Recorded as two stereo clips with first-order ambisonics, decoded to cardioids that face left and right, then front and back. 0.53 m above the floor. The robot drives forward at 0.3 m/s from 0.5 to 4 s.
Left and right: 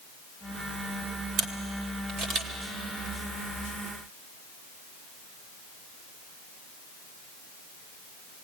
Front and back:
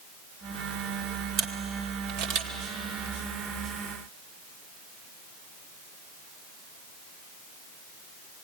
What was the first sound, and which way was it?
A camera shutter, 135° right.